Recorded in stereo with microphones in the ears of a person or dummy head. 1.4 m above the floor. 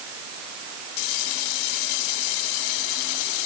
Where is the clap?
I don't hear a clap.